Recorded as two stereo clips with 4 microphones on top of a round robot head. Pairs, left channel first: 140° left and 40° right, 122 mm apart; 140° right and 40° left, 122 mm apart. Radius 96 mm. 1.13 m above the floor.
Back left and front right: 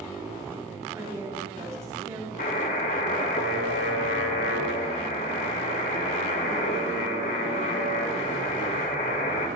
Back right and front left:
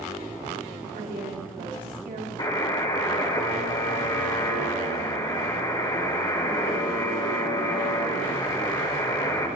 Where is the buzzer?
160° left, 2.5 m.